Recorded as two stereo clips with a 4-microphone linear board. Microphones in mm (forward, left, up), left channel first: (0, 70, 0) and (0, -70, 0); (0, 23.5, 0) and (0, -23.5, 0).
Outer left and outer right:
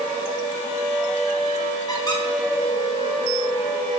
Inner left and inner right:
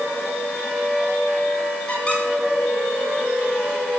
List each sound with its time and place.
1.9 s a squeak: 25° left (ahead or behind), 1.2 m